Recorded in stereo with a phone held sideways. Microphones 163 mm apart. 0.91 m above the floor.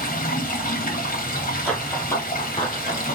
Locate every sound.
0.0 s running water: 65° left (ahead or behind), 1.7 m
1.6 s running footsteps: 5° left (ahead or behind), 1.5 m; by 3.2 s 50° left (ahead or behind), 1.4 m